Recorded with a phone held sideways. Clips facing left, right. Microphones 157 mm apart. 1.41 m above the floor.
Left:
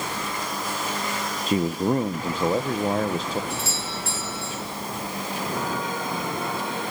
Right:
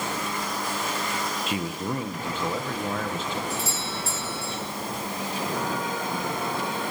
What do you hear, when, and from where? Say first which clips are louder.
1.5 s a man speaking: left 11 dB; 40° left (ahead or behind), 1.0 m
3.5 s a doorbell: even; 70° left (ahead or behind), 8.5 m